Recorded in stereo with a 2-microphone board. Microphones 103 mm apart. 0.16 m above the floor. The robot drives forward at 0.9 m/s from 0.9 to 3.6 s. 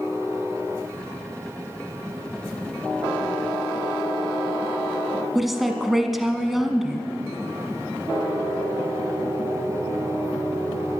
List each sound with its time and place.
5.3 s a woman speaking: centre (ahead or behind), 1.0 m